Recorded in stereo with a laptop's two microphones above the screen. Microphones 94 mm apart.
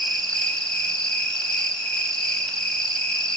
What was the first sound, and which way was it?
An insect, 10° left (ahead or behind).